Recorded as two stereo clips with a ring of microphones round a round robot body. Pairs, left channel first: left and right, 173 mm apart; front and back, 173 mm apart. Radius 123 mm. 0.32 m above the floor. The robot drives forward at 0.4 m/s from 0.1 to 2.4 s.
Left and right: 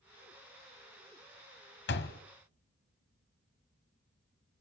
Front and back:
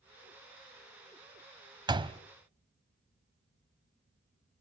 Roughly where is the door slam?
Behind left.